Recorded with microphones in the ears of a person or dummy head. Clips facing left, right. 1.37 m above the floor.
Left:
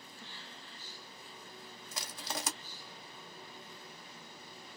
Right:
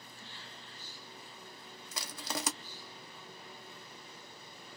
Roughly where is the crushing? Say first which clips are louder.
Right 2 dB; right.